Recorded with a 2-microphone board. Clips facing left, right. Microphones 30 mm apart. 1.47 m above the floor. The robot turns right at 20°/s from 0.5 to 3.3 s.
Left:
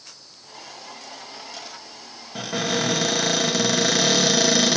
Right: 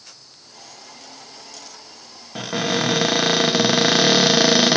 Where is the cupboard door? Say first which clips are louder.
Right 2 dB; 15° right (ahead or behind), 0.6 m; by 4.8 s 35° right (ahead or behind), 0.6 m.